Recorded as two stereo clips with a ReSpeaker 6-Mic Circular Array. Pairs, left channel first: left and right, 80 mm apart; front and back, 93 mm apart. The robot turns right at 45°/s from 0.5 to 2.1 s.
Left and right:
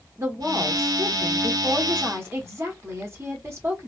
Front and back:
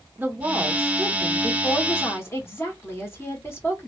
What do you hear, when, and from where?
0.2 s a woman speaking: 120° right, 1.2 m; by 3.9 s 50° right, 1.2 m